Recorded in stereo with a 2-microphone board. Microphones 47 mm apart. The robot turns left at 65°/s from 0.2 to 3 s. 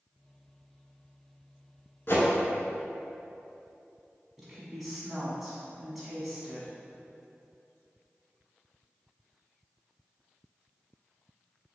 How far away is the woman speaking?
About 1.1 m.